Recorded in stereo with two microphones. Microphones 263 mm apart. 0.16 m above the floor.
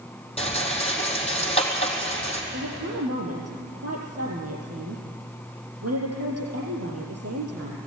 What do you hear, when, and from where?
0.4 s a rattle: 25° left (ahead or behind), 3 m
2.5 s a woman speaking: 75° right (ahead or behind), 5 m